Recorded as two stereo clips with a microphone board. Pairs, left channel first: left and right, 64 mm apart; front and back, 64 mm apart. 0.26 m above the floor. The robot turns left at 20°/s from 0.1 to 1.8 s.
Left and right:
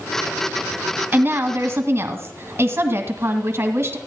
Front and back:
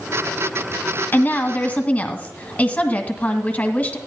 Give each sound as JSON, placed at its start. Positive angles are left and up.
{"t": 1.1, "sound": "a woman speaking", "azimuth_deg": -45, "distance_m": 1.6}